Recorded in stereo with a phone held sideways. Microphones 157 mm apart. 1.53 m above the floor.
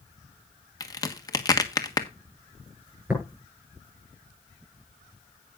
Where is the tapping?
10° right (ahead or behind), 8.5 m.